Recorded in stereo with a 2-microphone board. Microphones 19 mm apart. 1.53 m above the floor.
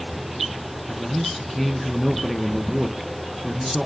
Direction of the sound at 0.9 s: 5° right (ahead or behind).